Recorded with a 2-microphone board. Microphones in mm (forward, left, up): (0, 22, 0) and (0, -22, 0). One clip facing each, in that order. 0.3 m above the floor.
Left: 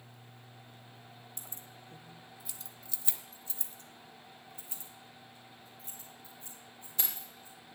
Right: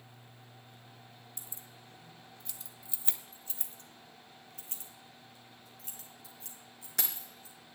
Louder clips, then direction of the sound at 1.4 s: Left 2 dB; 50° left (ahead or behind).